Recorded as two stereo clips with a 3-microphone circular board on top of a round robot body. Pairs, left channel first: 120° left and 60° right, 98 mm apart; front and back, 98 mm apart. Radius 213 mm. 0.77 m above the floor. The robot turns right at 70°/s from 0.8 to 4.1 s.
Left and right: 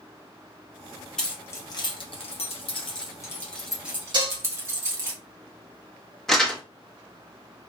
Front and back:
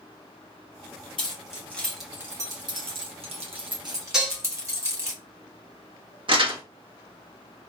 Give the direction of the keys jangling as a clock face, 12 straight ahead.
11 o'clock.